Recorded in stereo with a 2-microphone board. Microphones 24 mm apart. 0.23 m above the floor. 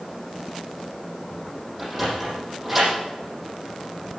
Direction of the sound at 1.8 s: 10° right (ahead or behind).